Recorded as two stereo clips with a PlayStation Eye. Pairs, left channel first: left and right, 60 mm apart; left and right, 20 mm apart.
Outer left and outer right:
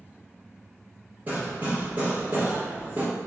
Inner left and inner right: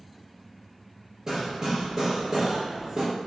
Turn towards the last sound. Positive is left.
turn(degrees=-30)  # may be behind; listen again after turning